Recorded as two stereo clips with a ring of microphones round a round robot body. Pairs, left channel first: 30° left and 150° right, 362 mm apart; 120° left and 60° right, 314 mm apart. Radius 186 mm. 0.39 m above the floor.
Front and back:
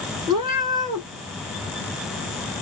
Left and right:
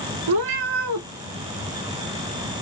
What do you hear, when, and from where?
0.3 s a cat meowing: 70° right, 3.5 m